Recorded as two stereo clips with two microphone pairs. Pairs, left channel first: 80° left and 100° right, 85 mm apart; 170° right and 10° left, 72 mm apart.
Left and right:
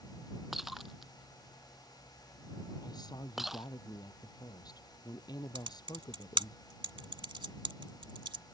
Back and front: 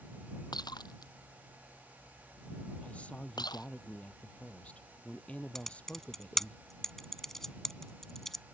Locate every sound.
0.5 s breaking glass: 175° left
2.8 s a woman speaking: 120° left
5.5 s typing on a keyboard: 85° right